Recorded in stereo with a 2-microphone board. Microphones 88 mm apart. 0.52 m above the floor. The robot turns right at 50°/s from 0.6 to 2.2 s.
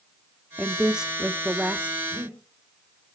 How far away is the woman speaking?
About 0.7 m.